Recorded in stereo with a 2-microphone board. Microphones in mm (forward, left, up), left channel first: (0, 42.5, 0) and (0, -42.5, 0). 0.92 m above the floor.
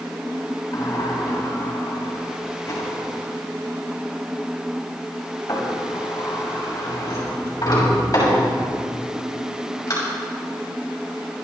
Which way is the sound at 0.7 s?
40° left (ahead or behind).